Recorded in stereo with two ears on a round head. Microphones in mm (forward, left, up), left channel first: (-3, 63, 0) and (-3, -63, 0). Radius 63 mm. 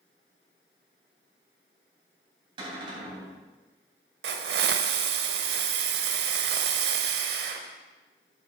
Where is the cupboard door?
35° right (ahead or behind), 3.5 m.